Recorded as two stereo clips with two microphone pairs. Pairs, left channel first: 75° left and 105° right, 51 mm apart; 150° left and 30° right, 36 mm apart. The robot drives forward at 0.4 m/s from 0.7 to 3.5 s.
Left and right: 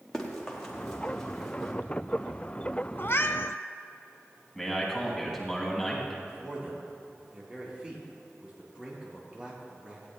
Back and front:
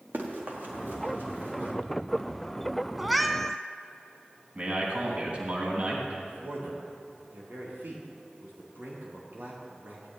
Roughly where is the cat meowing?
Ahead left.